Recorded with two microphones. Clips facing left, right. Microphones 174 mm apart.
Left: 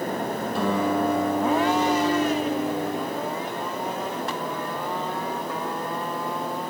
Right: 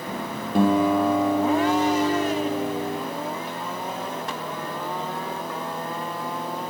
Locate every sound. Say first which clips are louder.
0.5 s a guitar: right 6 dB; 55° right (ahead or behind), 5 m